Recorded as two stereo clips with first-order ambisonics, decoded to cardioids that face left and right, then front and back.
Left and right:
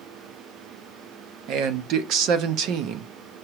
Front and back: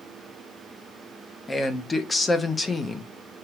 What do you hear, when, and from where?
1.5 s a man speaking: 75° right, 0.8 m